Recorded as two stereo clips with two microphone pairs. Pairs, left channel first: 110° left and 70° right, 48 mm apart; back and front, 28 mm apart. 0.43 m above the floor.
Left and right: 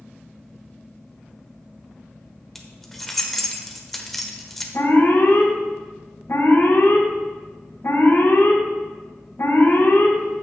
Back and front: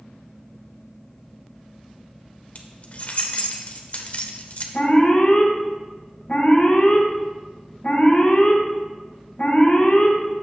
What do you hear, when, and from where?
2.5 s keys jangling: 170° right, 1.0 m
4.7 s an alarm: 130° left, 2.5 m